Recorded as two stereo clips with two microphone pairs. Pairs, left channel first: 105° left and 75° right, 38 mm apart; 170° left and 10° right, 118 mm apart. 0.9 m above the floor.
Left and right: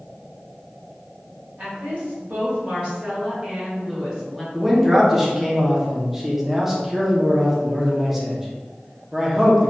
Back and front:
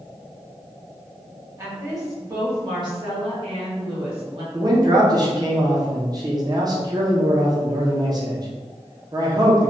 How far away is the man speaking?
About 0.6 m.